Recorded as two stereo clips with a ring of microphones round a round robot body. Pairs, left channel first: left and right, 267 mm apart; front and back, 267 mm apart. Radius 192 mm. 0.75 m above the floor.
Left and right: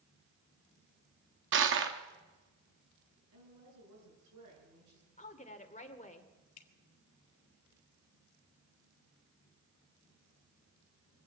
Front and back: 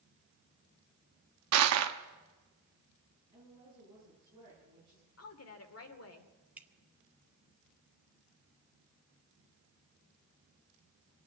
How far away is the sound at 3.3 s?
About 9 m.